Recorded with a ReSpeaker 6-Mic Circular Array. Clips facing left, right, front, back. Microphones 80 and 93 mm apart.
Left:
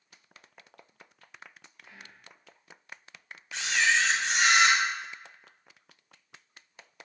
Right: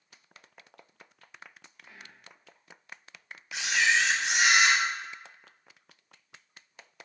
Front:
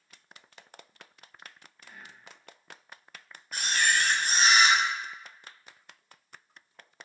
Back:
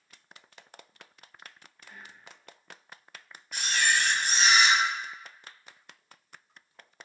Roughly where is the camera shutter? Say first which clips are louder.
Even, even; ahead.